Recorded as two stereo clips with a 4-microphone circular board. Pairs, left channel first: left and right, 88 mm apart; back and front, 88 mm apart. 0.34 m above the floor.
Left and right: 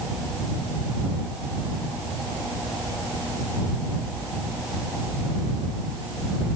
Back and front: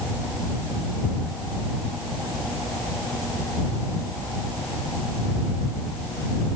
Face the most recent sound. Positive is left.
No sound to turn to.